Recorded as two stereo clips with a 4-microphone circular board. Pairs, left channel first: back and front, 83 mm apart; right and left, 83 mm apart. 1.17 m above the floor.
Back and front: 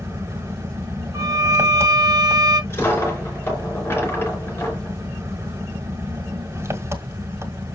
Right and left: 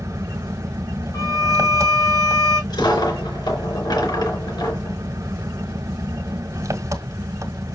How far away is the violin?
About 4 m.